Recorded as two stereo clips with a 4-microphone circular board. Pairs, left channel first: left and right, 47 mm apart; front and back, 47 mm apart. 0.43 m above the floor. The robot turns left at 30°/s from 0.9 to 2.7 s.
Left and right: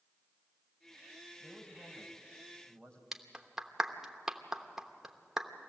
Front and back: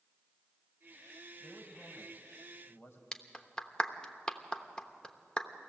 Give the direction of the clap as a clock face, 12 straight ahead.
1 o'clock.